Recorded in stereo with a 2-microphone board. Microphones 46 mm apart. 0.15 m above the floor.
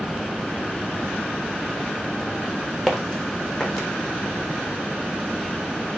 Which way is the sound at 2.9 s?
15° left (ahead or behind).